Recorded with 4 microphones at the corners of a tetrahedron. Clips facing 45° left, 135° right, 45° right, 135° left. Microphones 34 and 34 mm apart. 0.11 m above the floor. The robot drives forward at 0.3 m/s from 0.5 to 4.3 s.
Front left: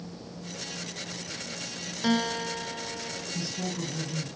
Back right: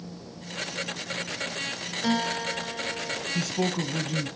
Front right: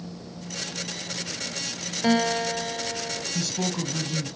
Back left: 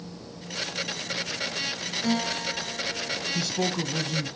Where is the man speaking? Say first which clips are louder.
Back right 7 dB, back left 1 dB; 155° right, 2 m; by 4.3 s 160° right, 2.5 m.